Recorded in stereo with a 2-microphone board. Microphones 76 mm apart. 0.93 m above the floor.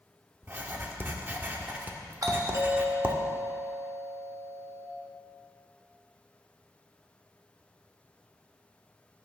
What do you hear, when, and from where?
0.4 s writing: 30° right (ahead or behind), 1.1 m
2.2 s a doorbell: 50° right (ahead or behind), 1.7 m